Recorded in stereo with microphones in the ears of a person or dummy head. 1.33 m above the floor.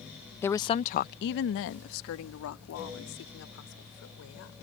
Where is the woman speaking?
5° left (ahead or behind); by 4.6 s 85° left.